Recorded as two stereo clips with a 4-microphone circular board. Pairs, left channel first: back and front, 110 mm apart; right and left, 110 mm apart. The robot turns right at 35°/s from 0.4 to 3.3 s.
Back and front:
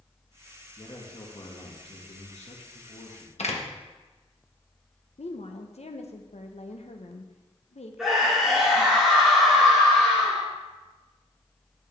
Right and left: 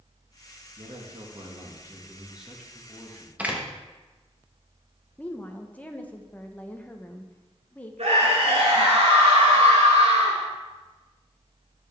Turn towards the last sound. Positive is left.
turn(degrees=90)